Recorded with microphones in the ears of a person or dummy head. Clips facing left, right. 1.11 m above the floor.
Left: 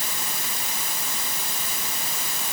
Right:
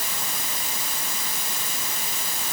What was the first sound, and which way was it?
Only background noise.